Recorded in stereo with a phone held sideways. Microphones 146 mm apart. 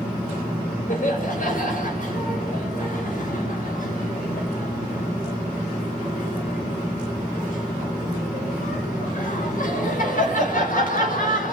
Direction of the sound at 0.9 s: 60° left (ahead or behind).